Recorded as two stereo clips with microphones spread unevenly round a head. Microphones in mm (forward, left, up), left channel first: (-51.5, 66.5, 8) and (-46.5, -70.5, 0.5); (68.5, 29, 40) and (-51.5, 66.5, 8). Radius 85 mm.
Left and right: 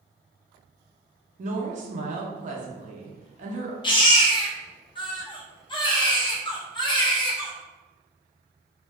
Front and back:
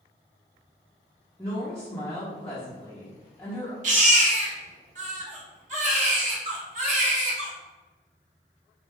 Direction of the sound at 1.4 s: 85° right.